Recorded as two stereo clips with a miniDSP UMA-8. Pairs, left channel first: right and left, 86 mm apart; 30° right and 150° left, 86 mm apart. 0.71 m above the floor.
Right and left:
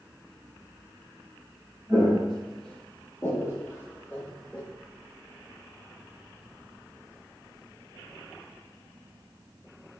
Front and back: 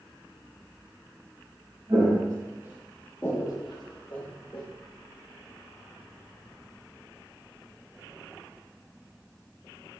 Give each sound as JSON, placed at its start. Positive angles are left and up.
{"t": 1.9, "sound": "footsteps", "azimuth_deg": 175, "distance_m": 1.4}